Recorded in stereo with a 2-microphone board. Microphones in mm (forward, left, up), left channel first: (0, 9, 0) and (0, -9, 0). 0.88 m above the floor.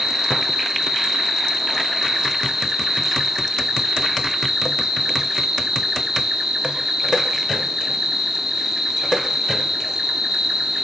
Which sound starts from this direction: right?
An insect, at 0.0 s.